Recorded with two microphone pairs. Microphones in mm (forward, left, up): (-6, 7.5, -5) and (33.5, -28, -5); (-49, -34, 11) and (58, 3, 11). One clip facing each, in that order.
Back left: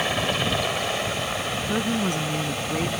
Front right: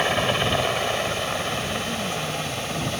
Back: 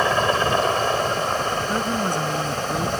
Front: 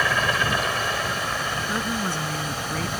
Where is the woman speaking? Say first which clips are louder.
Back left 3 dB, back 4 dB; 125° left.